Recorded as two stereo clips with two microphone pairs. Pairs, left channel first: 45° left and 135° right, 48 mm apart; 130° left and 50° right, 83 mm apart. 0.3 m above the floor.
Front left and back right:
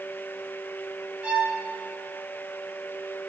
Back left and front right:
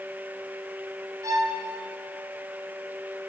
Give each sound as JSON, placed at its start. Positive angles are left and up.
{"t": 1.2, "sound": "a violin", "azimuth_deg": -75, "distance_m": 2.0}